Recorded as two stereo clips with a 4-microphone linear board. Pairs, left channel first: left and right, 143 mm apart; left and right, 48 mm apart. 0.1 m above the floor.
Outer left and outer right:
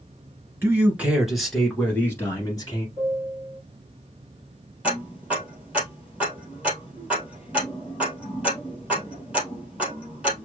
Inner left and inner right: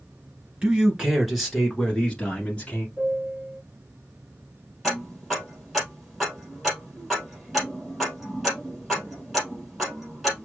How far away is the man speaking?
About 1.5 m.